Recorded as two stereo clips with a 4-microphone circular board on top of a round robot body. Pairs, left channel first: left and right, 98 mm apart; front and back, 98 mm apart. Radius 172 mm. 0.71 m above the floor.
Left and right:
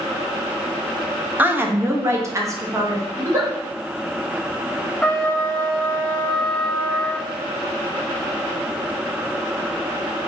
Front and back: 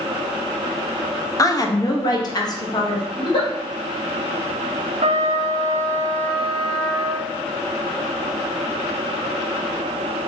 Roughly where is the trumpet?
Behind.